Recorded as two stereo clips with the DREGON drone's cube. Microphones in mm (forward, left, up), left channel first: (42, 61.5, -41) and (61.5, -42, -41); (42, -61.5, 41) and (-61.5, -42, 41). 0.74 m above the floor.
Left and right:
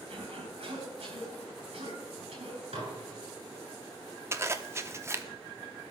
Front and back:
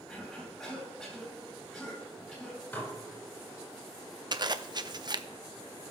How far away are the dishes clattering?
About 3 m.